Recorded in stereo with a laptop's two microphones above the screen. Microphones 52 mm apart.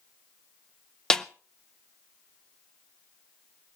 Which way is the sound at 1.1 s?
10° left (ahead or behind).